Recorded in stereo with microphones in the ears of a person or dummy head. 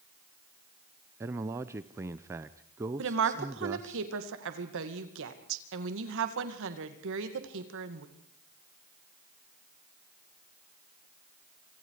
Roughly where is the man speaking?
Centre.